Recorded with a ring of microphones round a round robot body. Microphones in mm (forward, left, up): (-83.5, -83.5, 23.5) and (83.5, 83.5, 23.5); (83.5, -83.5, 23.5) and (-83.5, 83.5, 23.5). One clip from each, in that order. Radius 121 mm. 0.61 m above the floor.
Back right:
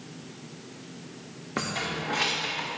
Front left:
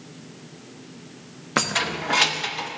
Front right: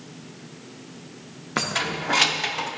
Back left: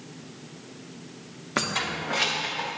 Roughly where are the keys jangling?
Ahead left.